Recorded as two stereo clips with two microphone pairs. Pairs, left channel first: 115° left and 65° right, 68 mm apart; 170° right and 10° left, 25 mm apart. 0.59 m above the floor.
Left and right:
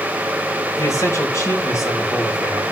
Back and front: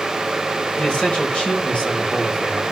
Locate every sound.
0.8 s a man speaking: 155° left, 4 m